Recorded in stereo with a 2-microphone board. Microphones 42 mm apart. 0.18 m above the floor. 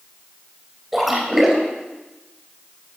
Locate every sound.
0.9 s a splash: 5° right (ahead or behind), 3 m